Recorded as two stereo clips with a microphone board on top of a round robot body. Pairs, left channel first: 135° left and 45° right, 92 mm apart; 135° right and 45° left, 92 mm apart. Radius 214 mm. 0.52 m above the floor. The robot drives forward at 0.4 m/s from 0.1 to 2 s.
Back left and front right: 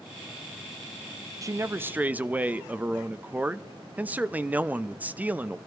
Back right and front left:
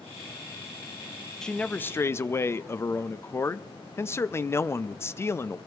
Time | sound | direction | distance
1.4 | a man speaking | 55° right | 0.7 m